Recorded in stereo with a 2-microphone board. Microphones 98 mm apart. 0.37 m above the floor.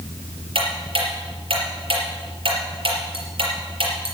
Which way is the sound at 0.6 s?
65° right (ahead or behind).